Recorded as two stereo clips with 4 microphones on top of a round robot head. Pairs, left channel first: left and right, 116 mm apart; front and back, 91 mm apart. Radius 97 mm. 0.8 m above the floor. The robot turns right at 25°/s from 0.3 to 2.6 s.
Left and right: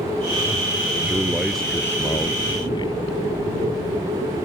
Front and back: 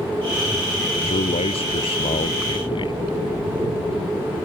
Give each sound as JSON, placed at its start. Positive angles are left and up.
{"t": 1.0, "sound": "a man speaking", "azimuth_deg": -10}